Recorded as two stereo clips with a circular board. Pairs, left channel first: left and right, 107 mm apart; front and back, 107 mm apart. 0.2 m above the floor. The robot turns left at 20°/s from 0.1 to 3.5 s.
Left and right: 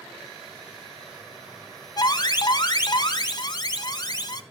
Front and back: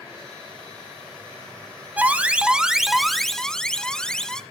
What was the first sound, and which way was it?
An alarm, 110° left.